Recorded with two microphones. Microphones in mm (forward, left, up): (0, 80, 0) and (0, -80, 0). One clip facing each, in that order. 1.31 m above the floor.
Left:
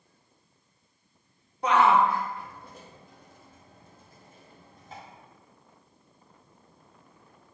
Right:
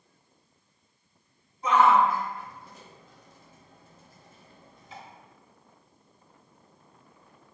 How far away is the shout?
About 1.2 m.